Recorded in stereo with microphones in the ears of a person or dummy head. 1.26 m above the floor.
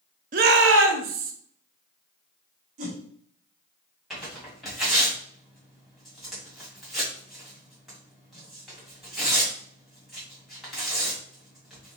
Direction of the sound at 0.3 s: 40° right (ahead or behind).